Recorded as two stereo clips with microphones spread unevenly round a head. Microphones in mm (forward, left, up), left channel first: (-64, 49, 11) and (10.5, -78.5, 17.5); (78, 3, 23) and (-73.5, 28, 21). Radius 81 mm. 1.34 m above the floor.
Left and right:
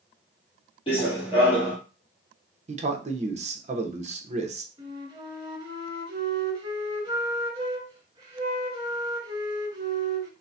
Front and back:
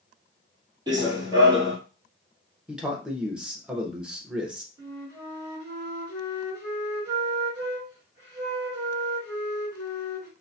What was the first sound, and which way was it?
Running footsteps, 130° left.